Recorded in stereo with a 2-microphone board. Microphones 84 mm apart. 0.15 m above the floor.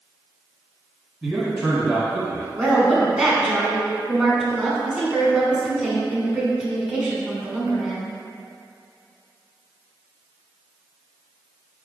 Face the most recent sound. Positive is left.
turn(degrees=-10)  # may be behind; listen again after turning